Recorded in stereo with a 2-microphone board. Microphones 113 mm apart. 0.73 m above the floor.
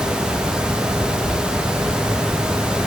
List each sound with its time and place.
Only background noise.